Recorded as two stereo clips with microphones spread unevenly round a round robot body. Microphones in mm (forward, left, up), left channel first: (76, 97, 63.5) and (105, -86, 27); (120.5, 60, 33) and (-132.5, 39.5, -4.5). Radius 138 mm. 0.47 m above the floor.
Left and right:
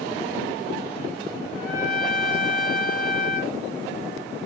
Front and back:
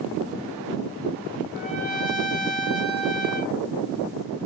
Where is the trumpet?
65° left, 4 m.